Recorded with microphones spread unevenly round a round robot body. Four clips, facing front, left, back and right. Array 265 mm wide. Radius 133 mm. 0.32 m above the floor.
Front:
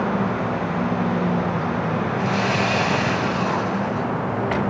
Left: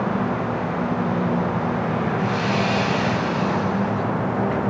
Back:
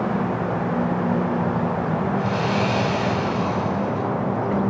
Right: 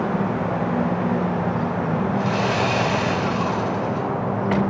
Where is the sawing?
50° right, 4.5 m.